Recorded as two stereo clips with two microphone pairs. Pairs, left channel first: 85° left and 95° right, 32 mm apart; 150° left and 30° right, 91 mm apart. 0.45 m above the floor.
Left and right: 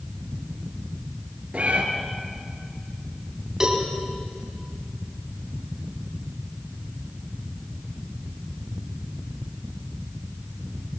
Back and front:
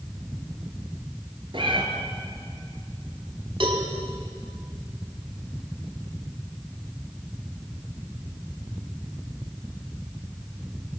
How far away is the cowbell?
About 4 m.